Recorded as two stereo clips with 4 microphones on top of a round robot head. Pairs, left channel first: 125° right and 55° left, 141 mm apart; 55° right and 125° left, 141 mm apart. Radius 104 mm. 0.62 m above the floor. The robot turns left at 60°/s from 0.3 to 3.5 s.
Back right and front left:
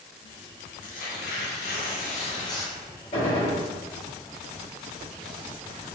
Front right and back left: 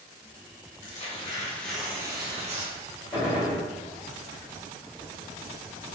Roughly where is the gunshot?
Behind right.